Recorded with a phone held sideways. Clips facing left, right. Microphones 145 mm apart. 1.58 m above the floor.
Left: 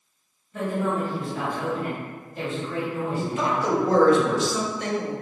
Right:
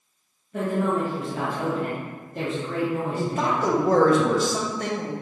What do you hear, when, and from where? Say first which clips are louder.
0.5 s a woman speaking: right 2 dB; 80° right, 1.5 m
3.2 s a man speaking: even; 45° right (ahead or behind), 1.0 m